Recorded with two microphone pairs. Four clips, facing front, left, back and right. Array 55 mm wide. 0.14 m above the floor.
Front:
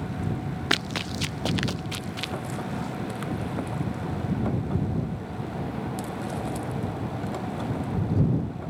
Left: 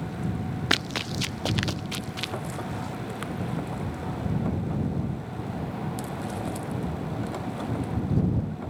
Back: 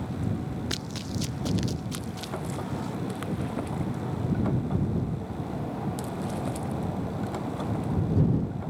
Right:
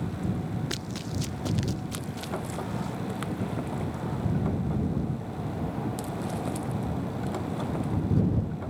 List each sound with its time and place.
0.7 s running footsteps: 50° left; by 2.3 s 45° left